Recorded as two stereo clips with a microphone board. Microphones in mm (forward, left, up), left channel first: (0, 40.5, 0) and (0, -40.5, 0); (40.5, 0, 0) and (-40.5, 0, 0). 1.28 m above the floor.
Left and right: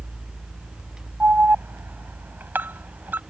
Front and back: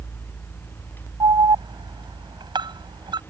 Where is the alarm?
155° right.